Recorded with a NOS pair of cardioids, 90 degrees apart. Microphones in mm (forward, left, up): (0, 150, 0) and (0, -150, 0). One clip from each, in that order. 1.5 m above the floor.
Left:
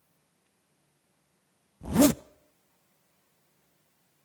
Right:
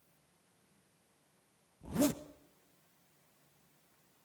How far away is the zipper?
About 0.7 m.